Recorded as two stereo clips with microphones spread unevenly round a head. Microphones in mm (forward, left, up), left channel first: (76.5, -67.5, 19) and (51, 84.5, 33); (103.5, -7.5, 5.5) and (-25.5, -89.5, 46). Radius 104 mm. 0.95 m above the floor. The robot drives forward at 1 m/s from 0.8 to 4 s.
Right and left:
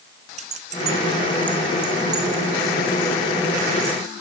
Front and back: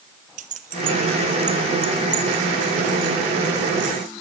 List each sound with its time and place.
0.4 s keys jangling: 155° left, 0.7 m; by 4.1 s 175° left, 4 m